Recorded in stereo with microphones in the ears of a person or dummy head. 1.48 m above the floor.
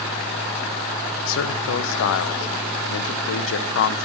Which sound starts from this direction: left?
A man speaking, at 1.2 s.